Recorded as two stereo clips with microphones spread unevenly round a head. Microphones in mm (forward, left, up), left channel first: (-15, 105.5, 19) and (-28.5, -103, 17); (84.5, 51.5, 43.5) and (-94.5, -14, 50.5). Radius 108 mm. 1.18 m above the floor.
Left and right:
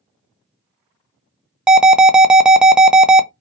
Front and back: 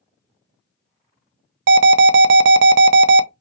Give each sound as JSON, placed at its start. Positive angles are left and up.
{"t": 1.7, "sound": "an alarm", "azimuth_deg": 180, "distance_m": 0.5}